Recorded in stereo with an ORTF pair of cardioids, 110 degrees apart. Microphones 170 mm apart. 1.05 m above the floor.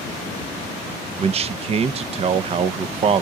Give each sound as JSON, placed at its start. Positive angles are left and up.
{"t": 1.2, "sound": "a man speaking", "azimuth_deg": -35, "distance_m": 0.6}